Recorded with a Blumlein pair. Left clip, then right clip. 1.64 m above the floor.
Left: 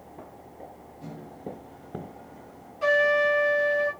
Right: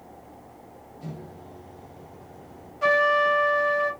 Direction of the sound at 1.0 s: 15° right.